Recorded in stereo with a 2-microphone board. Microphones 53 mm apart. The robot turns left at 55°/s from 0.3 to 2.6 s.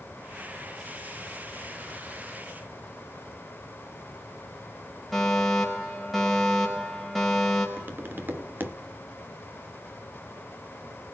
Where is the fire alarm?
Centre (ahead or behind), 4.5 m.